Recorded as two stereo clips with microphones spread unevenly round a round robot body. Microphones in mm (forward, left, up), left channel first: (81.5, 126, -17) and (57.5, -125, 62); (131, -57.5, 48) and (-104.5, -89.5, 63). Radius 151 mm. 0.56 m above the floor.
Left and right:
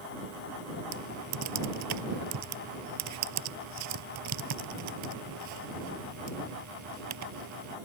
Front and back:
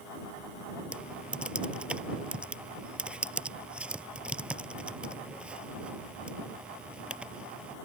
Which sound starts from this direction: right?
Typing on a keyboard, at 0.9 s.